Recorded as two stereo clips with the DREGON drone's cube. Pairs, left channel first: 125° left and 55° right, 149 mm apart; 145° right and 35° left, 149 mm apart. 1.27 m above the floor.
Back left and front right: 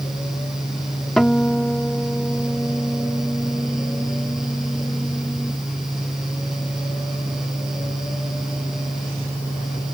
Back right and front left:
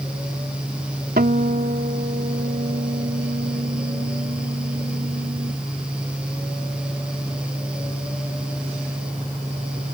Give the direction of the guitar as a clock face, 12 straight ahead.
11 o'clock.